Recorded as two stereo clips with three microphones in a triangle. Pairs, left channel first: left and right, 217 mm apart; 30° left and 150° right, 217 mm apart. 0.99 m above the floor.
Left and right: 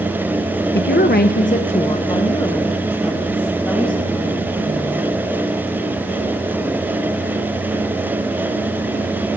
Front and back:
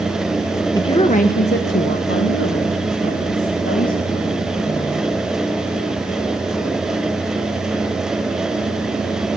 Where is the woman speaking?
100° left, 0.8 m; by 5.1 s 5° left, 3 m.